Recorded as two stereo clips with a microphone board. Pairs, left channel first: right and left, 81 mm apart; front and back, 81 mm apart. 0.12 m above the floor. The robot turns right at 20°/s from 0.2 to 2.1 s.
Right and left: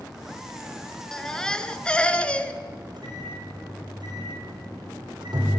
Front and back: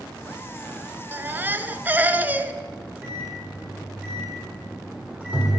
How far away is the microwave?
About 4 m.